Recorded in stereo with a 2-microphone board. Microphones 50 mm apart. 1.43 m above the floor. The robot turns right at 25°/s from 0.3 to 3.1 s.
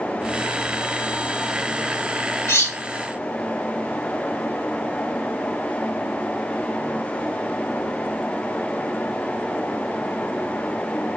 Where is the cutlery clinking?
65° left (ahead or behind), 1.1 m.